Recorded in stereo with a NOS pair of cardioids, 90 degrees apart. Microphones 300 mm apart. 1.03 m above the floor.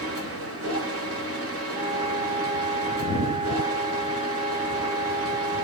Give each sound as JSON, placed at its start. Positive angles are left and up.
{"t": 0.0, "sound": "a machine running", "azimuth_deg": -50, "distance_m": 1.0}
{"t": 1.7, "sound": "a flute", "azimuth_deg": -10, "distance_m": 1.2}